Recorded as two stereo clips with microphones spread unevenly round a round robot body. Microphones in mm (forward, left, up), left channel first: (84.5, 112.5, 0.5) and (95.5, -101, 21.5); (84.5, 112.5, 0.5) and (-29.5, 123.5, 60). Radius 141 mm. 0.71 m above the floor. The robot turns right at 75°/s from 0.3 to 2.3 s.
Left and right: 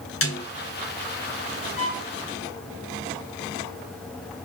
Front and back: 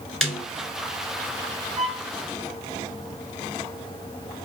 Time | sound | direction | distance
0.2 | a snare drum | 80° left | 2.5 m
1.8 | a violin | 150° left | 2.5 m